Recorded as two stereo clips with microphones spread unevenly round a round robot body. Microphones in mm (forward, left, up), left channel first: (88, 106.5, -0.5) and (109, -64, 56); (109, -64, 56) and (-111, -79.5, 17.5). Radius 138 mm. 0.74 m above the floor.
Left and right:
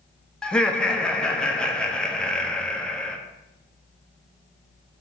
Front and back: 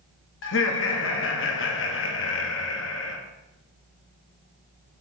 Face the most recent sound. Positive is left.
turn(degrees=30)